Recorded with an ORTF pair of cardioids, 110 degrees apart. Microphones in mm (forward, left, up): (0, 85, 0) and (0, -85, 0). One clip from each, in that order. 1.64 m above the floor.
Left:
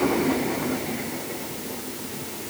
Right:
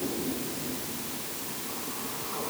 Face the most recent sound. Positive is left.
No sound to turn to.